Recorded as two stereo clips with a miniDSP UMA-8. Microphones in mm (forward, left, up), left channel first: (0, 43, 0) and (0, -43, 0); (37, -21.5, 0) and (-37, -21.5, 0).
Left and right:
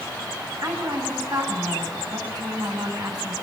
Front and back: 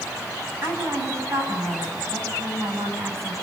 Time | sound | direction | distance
0.6 | a woman speaking | 130° right | 7 m